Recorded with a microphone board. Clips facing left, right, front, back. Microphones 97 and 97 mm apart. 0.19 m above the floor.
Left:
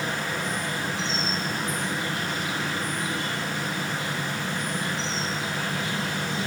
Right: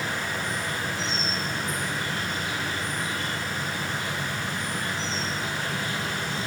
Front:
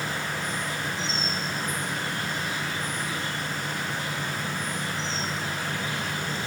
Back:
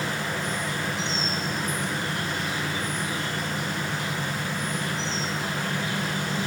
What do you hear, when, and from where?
0.0 s an insect: 160° left, 3 m